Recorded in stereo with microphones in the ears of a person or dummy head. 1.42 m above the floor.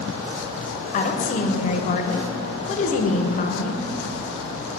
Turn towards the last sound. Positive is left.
turn(degrees=40)  # may be behind; listen again after turning